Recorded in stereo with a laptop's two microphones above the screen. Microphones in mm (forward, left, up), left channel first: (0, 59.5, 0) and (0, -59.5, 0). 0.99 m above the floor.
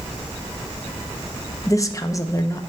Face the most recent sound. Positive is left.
turn(degrees=25)  # may be behind; listen again after turning